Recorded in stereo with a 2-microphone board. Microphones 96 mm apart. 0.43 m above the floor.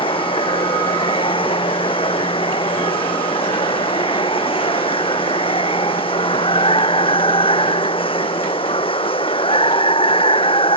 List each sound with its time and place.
0.0 s running water: 70° left (ahead or behind)